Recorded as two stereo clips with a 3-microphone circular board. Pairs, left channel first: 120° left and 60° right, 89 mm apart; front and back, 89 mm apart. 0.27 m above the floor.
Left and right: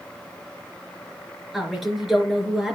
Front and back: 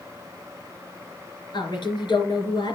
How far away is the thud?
No thud in this recording.